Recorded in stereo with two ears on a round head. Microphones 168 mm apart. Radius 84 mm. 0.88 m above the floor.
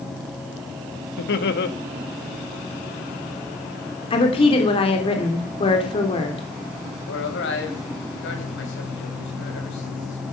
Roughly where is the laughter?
Left.